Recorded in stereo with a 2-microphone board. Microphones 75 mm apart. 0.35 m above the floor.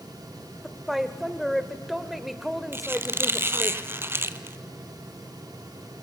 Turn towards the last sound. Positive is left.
turn(degrees=-30)  # may be behind; listen again after turning